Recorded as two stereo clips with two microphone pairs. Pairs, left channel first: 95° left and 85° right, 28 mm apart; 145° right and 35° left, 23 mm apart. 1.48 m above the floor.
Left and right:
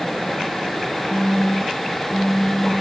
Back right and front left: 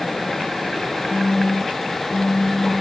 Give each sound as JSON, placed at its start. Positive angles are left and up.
{"t": 1.1, "sound": "a phone buzzing", "azimuth_deg": -165, "distance_m": 5.5}